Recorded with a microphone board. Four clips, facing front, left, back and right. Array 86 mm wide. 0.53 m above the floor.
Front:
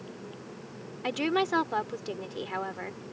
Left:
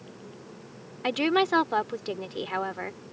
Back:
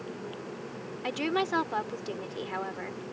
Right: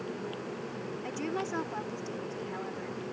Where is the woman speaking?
85° left.